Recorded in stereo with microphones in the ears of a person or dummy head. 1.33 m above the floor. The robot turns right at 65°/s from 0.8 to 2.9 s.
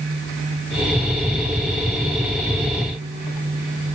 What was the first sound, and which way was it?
Only background noise.